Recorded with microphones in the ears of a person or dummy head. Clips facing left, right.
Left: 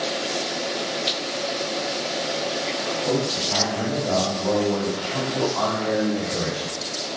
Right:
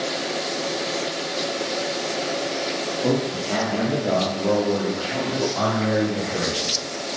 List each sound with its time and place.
3.0 s a man speaking: 40° right (ahead or behind), 3 m; by 6.8 s centre (ahead or behind), 4.5 m